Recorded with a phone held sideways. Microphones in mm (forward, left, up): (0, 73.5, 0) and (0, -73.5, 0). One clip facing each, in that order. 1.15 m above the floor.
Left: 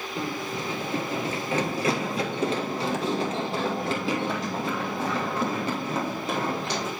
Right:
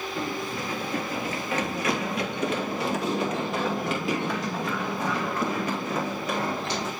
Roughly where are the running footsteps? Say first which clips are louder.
Left 1 dB; centre.